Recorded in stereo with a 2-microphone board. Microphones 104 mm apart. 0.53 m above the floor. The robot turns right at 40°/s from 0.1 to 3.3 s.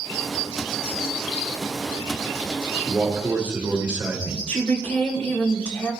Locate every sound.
2.8 s a man speaking: centre (ahead or behind), 2.0 m; by 4.4 s 15° right (ahead or behind), 2.0 m
4.5 s a woman speaking: 20° left (ahead or behind), 2 m